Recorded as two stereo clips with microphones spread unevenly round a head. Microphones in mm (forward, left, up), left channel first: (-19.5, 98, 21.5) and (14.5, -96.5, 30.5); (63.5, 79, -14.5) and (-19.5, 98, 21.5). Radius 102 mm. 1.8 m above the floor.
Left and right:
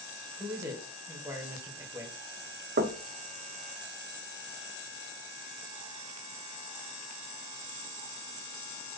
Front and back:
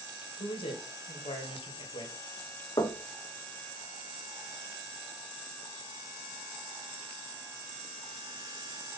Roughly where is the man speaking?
Ahead.